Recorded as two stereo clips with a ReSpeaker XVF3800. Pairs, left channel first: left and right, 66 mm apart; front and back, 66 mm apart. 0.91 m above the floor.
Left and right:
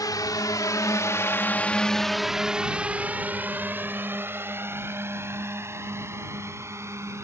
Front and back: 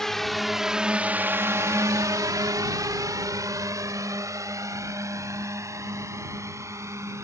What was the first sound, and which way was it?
A drone, 85° left.